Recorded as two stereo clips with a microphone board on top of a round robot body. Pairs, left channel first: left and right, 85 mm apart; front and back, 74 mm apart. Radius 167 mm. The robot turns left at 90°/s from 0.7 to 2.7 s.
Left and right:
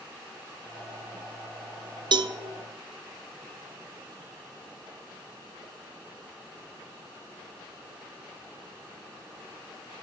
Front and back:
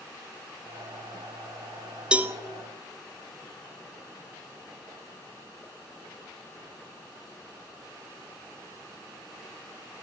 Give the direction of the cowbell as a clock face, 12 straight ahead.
3 o'clock.